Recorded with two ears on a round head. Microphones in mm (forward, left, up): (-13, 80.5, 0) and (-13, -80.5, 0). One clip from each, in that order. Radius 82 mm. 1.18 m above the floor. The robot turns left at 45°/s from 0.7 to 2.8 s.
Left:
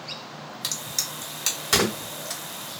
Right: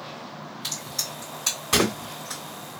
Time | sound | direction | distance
0.6 | a crack | 55° left (ahead or behind) | 1.4 m